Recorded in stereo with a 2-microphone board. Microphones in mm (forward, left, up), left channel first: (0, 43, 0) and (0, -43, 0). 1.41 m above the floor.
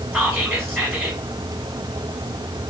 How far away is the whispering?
About 1.0 m.